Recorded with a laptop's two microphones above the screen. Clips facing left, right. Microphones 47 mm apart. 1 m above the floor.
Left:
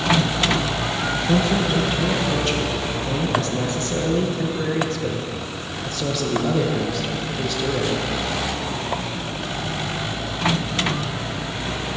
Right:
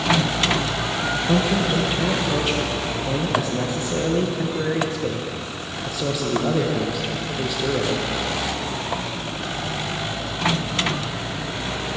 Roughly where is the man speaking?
Centre.